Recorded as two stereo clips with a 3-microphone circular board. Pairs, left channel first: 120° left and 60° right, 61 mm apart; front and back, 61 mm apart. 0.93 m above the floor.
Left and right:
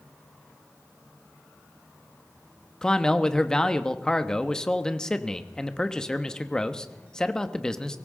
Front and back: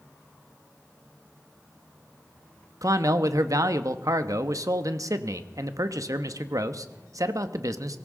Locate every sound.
2.8 s a man speaking: 160° right, 1.0 m